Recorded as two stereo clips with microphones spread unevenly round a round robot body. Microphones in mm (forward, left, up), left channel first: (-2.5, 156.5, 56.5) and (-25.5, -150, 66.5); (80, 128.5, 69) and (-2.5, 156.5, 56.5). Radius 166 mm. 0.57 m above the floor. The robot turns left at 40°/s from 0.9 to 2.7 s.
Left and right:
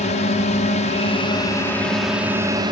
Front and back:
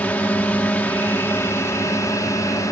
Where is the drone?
40° left; by 2.7 s 30° right.